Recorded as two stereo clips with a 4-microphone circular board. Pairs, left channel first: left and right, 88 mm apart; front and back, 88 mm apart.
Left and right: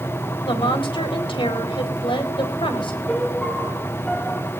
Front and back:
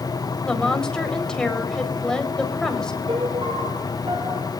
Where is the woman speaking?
85° left, 4 m.